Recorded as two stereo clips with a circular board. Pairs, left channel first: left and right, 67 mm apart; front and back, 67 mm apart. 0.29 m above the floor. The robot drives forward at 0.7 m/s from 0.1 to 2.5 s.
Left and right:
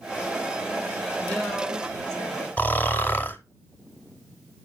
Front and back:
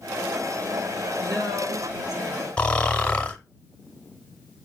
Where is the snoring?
65° left, 0.9 m.